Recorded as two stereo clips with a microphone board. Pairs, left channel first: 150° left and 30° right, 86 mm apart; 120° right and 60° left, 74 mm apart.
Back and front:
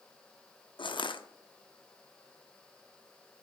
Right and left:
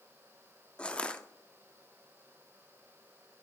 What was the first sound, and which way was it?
Crushing, 165° left.